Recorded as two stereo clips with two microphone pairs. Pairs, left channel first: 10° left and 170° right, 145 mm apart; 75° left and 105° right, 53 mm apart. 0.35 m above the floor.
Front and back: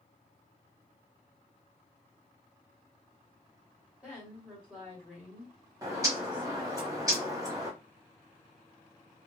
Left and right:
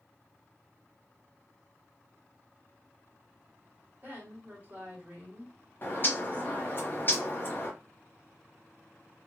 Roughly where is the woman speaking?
Right.